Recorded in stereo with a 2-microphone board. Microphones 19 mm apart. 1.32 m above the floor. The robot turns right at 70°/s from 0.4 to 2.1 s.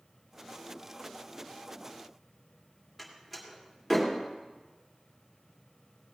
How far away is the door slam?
About 2.5 m.